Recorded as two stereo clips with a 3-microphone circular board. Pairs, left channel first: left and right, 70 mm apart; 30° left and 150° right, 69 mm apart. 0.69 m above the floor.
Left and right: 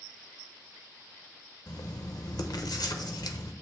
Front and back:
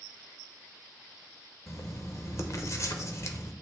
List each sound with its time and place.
1.7 s writing: 75° left, 0.8 m